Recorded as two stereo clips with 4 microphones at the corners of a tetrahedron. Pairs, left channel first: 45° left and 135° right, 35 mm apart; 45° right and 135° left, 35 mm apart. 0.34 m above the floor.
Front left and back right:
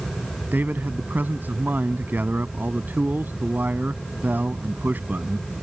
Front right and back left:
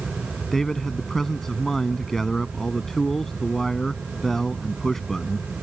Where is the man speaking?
125° right.